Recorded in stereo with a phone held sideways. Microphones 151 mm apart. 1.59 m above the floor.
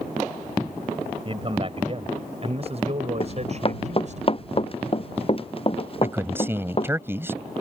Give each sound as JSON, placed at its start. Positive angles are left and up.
{"t": 1.2, "sound": "a man speaking", "side_deg": -35}
{"t": 3.2, "sound": "running footsteps", "side_deg": 40}
{"t": 6.0, "sound": "a man speaking", "side_deg": -15}